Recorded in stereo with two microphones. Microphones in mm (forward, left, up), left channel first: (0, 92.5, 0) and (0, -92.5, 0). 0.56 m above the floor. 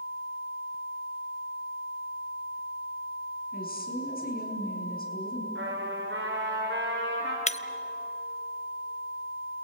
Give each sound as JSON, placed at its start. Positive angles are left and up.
{"t": 3.5, "sound": "a woman speaking", "side_deg": 55, "distance_m": 5.0}
{"t": 5.5, "sound": "a trumpet", "side_deg": -80, "distance_m": 5.5}
{"t": 7.5, "sound": "breaking glass", "side_deg": 40, "distance_m": 0.8}